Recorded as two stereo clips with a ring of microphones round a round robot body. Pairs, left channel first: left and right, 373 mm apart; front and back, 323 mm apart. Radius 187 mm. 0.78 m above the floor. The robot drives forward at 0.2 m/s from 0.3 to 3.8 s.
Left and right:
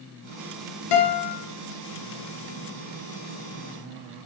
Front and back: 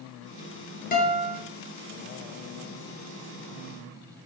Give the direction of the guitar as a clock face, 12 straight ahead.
10 o'clock.